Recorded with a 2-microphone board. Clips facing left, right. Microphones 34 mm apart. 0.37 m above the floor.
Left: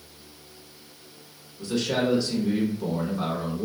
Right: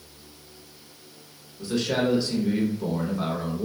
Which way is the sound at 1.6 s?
5° right (ahead or behind).